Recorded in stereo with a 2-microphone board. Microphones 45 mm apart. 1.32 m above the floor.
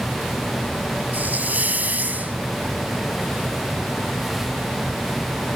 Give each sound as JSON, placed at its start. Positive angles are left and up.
{"t": 1.1, "sound": "a hiss", "side_deg": -40}